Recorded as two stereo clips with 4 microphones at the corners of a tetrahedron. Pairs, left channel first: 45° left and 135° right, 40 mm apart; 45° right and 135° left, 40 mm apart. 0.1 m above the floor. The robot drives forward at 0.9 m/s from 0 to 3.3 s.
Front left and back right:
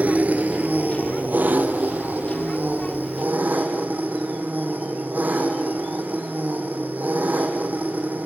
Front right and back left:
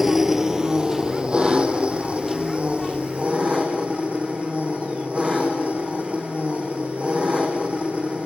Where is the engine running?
145° right, 1.2 m; by 8.3 s 175° right, 4 m.